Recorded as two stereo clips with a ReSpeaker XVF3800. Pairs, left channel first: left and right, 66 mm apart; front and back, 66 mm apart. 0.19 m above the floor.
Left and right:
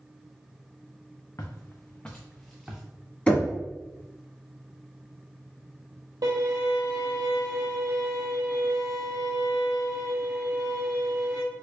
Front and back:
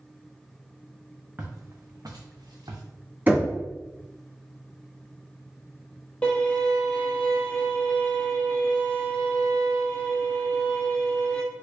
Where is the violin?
75° right, 1.0 m.